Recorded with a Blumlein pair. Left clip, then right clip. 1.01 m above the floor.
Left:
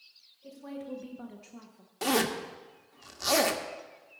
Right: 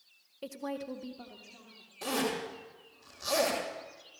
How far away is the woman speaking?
About 0.9 m.